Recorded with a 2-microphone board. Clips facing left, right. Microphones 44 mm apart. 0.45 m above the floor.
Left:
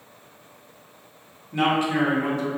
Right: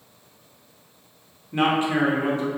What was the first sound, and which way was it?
A man speaking, 30° right (ahead or behind).